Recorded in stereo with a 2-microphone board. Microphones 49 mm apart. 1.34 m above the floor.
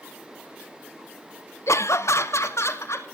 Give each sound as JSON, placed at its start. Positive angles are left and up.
{"t": 1.7, "sound": "laughter", "side_deg": 70, "distance_m": 0.5}